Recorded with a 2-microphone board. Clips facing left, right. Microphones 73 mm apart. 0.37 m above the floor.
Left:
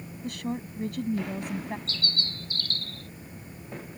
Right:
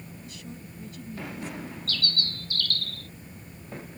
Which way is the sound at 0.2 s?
70° left (ahead or behind).